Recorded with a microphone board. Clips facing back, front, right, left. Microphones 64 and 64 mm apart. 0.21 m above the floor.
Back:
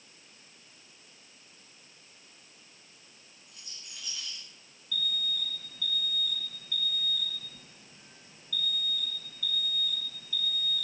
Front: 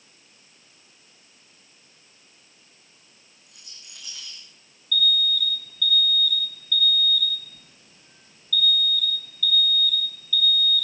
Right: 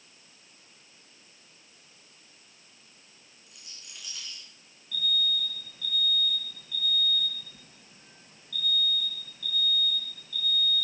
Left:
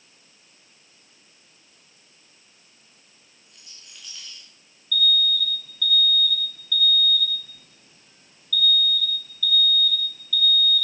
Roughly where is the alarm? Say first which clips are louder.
Front 10 dB, left 7 dB; behind right.